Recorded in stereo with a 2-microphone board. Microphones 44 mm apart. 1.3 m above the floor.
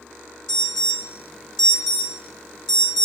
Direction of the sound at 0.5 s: 15° left (ahead or behind).